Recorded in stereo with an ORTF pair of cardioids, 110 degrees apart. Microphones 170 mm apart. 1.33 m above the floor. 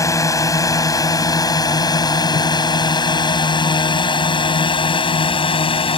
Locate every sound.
0.0 s a drone: 20° left; by 6.0 s 30° left